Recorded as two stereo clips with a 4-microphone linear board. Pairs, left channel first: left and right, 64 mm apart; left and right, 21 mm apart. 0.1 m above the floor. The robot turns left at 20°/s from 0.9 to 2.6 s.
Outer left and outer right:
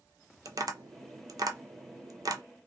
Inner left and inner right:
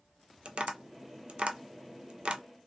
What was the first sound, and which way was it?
Tapping, 65° right (ahead or behind).